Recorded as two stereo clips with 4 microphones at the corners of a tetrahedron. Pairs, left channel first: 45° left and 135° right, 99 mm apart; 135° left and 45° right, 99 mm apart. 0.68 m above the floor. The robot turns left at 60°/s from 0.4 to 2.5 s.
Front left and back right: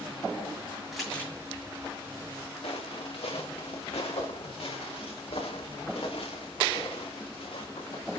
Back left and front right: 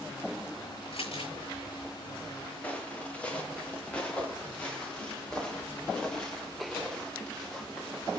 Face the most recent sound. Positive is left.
turn(degrees=50)